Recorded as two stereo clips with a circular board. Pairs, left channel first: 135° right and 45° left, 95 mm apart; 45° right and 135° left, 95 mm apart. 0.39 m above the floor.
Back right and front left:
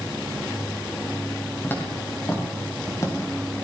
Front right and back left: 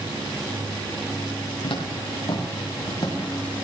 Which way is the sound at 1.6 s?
65° right.